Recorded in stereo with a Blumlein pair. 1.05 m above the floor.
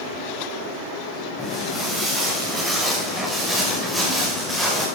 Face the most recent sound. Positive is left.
turn(degrees=5)